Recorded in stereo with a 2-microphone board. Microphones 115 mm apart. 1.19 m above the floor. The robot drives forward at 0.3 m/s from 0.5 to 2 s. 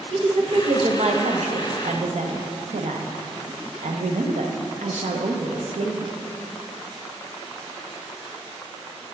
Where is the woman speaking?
60° right (ahead or behind), 0.8 m; by 6.2 s 85° right, 0.7 m.